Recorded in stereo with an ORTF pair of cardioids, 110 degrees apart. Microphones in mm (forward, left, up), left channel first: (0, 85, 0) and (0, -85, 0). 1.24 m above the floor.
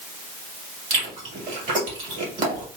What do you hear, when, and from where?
0.9 s chewing: 45° right, 2.5 m